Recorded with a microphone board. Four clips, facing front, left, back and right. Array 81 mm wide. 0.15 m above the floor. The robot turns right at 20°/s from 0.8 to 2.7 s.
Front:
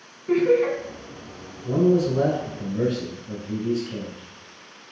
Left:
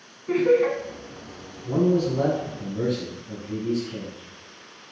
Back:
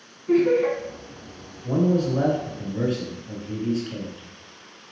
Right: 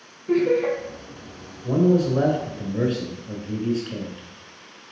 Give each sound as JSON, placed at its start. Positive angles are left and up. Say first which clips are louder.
{"t": 0.3, "sound": "laughter", "louder": "even, even", "azimuth_deg": 50, "distance_m": 1.3}
{"t": 1.6, "sound": "a man speaking", "louder": "right 2 dB, front 2 dB", "azimuth_deg": -120, "distance_m": 1.4}